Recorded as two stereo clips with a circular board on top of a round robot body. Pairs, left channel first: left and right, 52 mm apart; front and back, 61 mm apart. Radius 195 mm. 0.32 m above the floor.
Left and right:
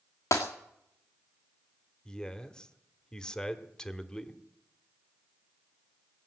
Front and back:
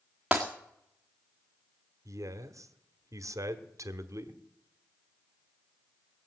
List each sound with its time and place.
0.3 s breaking glass: 100° left, 2.0 m
2.0 s a man speaking: 165° left, 1.5 m